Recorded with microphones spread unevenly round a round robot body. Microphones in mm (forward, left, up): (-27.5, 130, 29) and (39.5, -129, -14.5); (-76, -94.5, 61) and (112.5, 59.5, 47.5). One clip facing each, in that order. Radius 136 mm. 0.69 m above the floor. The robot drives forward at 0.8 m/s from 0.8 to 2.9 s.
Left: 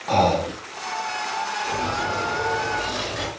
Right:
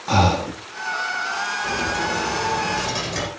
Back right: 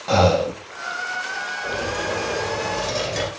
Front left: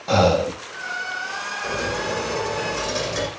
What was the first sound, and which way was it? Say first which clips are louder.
Breathing: even, even; 45° right.